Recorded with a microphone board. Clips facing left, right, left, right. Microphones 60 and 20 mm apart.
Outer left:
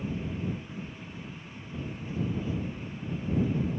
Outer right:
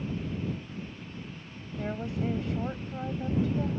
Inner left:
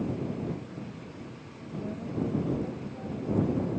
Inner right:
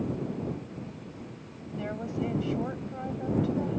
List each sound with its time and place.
1.8 s a woman speaking: 85° right